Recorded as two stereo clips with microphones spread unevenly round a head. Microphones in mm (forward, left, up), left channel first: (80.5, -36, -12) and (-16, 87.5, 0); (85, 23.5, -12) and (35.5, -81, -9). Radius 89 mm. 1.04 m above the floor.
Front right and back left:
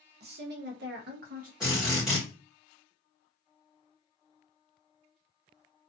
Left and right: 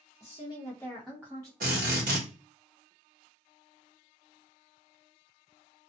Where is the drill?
145° right, 1.2 m.